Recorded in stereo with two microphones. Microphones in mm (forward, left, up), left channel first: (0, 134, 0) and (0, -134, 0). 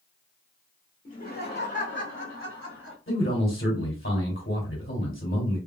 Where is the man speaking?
50° left (ahead or behind), 1.8 m.